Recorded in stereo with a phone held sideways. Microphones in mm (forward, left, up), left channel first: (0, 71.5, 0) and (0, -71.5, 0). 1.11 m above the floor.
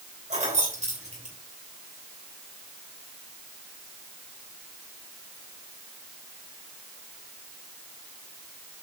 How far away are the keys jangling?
About 3 m.